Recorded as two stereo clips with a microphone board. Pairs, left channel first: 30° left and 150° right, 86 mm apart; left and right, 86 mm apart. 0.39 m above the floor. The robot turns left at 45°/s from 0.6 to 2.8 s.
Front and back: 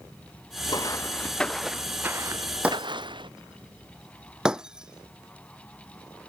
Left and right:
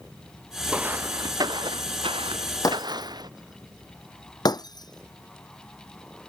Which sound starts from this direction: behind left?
Breaking glass, at 2.6 s.